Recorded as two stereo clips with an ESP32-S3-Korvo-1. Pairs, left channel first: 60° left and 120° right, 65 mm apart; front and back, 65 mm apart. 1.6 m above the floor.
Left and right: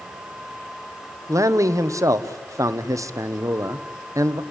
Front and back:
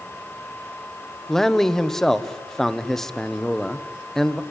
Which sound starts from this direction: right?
A man speaking, at 1.3 s.